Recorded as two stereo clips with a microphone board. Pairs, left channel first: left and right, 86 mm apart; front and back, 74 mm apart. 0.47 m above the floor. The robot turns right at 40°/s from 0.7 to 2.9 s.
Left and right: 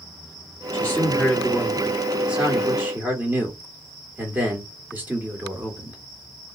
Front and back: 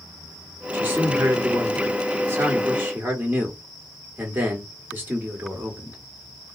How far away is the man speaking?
About 1.4 m.